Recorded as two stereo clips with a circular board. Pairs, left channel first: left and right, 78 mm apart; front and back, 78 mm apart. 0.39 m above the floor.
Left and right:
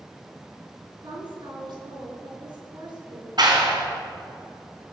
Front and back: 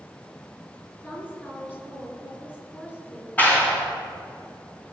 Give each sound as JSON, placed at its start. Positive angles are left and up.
{"t": 1.0, "sound": "a woman speaking", "azimuth_deg": -70, "distance_m": 4.5}
{"t": 3.4, "sound": "a clap", "azimuth_deg": -70, "distance_m": 3.0}